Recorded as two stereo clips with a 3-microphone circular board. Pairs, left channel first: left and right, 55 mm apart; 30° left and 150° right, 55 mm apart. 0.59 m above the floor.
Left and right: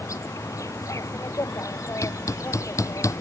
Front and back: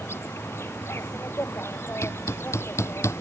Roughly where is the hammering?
Ahead left.